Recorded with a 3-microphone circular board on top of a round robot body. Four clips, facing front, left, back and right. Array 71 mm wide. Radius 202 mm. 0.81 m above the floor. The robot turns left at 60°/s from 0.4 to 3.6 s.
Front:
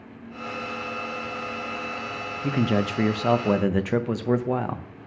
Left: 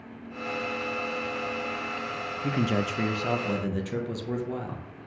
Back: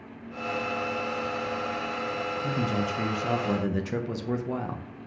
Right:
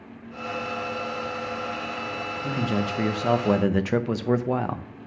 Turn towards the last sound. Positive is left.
turn(degrees=-45)